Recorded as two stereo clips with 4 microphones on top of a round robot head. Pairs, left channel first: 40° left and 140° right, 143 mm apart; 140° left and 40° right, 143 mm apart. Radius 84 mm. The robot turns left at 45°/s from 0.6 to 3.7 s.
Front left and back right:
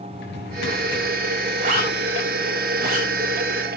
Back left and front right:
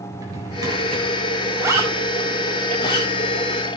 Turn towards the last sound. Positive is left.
turn(degrees=160)